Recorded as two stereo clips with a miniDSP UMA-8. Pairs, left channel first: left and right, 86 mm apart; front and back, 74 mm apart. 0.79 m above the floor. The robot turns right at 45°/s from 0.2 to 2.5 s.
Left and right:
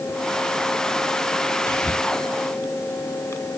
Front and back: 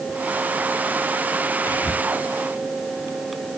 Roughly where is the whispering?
Ahead left.